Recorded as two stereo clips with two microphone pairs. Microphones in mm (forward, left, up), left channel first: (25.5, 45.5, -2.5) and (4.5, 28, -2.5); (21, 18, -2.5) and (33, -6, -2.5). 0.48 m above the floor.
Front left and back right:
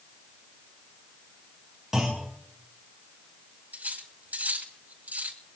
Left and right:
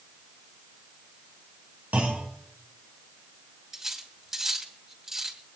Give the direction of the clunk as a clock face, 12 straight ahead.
2 o'clock.